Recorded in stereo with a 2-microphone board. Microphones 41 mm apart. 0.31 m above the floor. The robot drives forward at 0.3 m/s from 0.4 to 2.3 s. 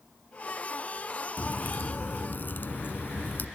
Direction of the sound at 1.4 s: 60° left (ahead or behind).